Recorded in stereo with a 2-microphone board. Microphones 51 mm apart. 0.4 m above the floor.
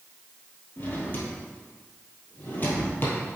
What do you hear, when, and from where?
0.8 s a drawer: 40° left (ahead or behind), 2.5 m